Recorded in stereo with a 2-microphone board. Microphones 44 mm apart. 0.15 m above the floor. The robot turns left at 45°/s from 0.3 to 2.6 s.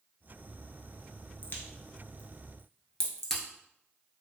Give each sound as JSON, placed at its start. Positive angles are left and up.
{"t": 1.4, "sound": "a crack", "side_deg": 55, "distance_m": 0.8}